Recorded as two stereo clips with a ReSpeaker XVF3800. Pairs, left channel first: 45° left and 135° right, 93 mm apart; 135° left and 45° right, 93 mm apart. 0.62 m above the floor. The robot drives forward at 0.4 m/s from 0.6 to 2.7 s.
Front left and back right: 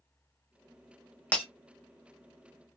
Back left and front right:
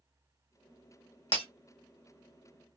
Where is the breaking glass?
120° left, 1.1 m; by 1.4 s 125° left, 1.1 m.